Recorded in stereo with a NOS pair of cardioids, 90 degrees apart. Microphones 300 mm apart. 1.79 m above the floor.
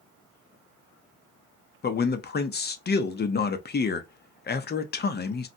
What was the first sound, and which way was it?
A man speaking, 30° left.